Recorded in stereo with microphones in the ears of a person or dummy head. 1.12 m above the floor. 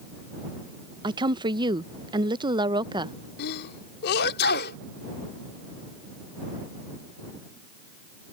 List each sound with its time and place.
1.0 s a woman speaking: 20° right (ahead or behind)
3.4 s a sneeze: 55° left (ahead or behind)